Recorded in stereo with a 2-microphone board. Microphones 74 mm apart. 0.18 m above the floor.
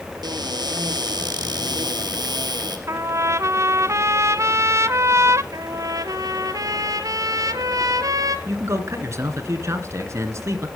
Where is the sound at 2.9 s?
40° right (ahead or behind), 0.6 m.